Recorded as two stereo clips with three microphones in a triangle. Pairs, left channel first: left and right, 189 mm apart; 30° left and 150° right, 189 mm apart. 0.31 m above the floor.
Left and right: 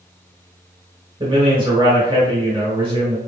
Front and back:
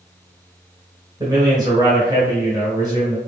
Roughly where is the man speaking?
Right.